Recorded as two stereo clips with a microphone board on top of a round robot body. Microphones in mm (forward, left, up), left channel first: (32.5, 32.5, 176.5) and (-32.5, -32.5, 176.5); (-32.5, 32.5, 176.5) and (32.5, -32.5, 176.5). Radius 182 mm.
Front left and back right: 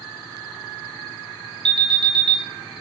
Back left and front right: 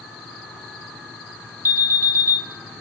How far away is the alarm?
About 1.0 m.